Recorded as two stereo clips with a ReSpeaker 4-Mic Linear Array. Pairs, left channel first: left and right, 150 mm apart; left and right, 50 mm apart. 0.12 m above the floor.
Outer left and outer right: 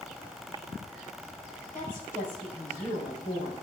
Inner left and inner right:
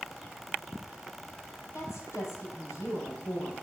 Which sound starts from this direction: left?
A woman speaking, at 1.7 s.